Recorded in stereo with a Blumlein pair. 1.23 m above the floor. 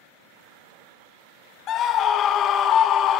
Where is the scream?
30° left, 0.5 m.